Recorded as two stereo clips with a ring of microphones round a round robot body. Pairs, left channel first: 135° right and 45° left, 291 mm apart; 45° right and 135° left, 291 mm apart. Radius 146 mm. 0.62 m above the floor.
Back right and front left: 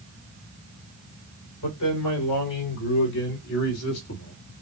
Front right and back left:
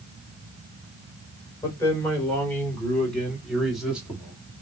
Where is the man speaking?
125° right, 3 m; by 4.5 s 150° right, 1.2 m.